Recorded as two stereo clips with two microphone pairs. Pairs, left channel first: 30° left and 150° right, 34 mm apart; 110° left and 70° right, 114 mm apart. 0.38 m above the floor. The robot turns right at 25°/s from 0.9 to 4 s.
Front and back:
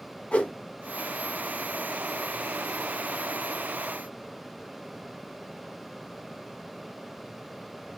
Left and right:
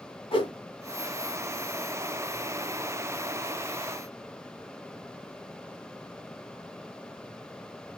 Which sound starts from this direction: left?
A whoosh, at 0.3 s.